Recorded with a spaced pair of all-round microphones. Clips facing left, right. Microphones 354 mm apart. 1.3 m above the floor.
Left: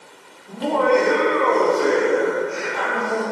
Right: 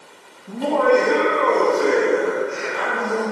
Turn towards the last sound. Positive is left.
turn(degrees=-15)  # may be behind; listen again after turning